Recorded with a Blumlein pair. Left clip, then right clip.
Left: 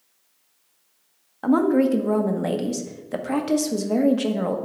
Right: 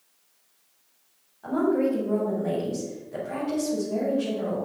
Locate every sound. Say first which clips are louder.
1.4 s a woman speaking: left 5 dB; 40° left, 1.1 m